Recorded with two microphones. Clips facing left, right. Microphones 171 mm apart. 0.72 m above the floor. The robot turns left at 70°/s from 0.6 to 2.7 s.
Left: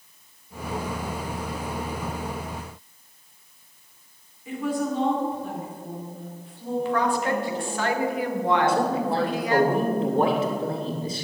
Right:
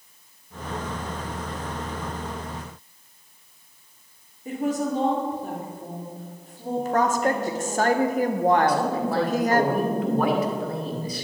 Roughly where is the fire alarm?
No fire alarm in this recording.